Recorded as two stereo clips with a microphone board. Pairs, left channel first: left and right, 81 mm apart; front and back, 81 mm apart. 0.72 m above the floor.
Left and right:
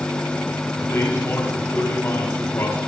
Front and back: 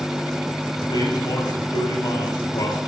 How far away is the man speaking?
About 4 m.